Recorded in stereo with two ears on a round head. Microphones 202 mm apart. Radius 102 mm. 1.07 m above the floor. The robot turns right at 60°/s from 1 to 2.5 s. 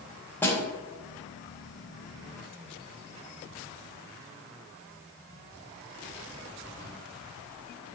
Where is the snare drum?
10° left (ahead or behind), 1.0 m.